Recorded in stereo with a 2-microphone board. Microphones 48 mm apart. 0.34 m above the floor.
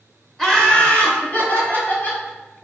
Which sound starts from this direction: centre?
Laughter, at 0.4 s.